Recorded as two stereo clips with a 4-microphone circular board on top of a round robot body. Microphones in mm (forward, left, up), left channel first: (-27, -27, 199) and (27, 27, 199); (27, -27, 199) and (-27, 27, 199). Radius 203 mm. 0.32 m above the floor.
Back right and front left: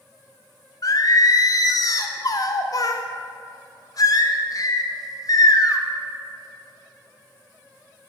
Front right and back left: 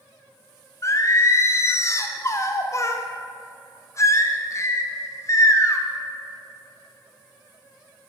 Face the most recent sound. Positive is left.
turn(degrees=-95)